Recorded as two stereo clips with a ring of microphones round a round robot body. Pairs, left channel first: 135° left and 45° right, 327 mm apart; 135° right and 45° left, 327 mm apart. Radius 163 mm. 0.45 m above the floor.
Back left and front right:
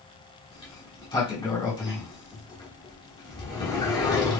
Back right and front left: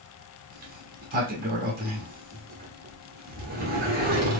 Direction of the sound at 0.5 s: 70° left.